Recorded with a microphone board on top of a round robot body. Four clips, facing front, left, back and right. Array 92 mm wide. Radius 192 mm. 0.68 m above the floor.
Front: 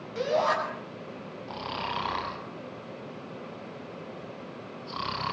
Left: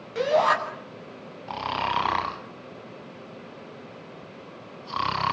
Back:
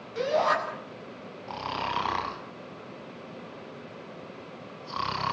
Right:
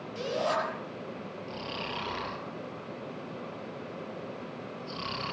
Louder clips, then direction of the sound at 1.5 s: Left 12 dB, back 3 dB; 100° left.